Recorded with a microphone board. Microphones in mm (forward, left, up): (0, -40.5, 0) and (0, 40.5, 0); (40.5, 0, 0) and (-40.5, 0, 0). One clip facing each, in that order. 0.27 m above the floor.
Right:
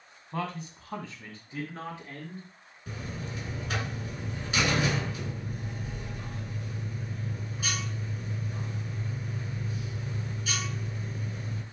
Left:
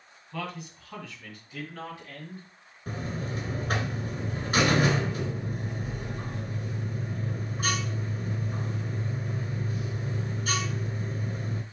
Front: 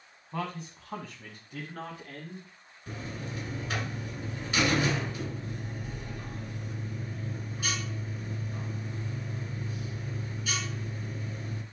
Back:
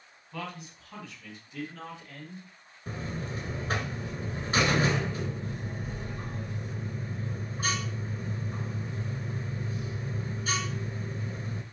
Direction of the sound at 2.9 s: 135° left.